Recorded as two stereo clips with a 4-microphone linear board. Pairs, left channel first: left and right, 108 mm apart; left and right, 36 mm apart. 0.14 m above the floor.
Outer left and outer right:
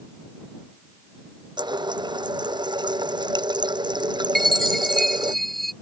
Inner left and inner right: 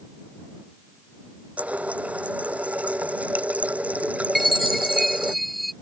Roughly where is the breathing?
I don't hear breathing.